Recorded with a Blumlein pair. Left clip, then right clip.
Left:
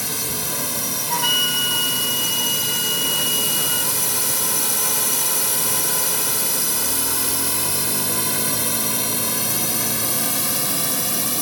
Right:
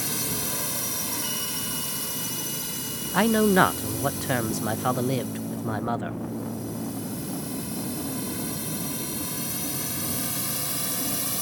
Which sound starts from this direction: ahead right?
A man speaking, at 3.1 s.